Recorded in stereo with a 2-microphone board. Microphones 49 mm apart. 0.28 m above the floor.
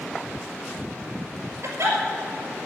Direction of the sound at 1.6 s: 80° right.